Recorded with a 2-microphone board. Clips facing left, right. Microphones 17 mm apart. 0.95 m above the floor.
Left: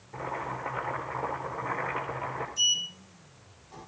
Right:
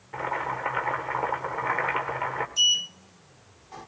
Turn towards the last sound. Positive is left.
turn(degrees=-40)  # may be behind; listen again after turning